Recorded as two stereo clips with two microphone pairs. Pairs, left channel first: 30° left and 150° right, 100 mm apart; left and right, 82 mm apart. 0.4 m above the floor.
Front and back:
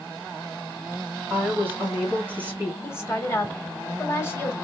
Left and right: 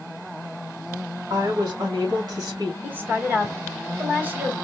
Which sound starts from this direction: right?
A woman speaking, at 1.3 s.